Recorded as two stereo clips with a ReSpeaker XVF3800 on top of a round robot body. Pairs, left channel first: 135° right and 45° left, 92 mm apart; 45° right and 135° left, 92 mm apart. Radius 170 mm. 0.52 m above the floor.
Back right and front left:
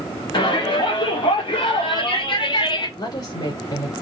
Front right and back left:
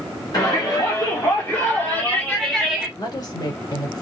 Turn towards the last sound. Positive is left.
turn(degrees=-90)